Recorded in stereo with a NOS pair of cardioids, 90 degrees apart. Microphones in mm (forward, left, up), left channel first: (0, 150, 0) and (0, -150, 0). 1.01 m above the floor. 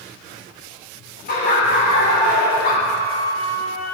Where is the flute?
20° right, 1.7 m.